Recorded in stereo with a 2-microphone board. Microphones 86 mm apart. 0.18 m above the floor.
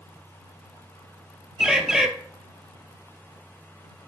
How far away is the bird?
About 0.8 m.